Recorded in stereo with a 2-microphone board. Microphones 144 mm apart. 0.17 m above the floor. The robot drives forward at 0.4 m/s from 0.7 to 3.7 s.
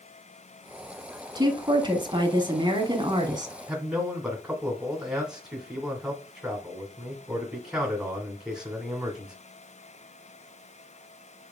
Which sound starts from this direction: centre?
A man speaking, at 3.7 s.